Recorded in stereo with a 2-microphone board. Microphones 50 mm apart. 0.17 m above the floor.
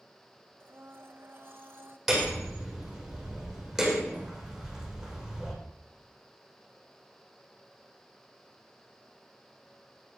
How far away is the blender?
About 1.8 m.